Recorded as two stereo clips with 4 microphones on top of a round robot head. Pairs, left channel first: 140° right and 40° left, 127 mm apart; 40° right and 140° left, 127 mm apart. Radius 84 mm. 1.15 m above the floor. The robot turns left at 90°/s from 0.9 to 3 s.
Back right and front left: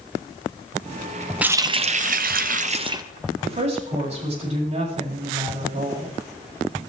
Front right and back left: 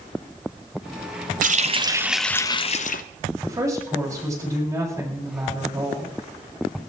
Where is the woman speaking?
75° left, 7 m.